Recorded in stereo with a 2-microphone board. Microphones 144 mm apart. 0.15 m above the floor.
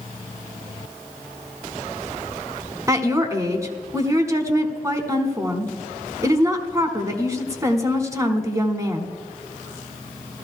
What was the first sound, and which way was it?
A woman speaking, 20° right (ahead or behind).